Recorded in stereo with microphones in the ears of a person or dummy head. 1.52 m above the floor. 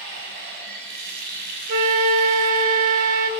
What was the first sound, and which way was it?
Running water, 70° right (ahead or behind).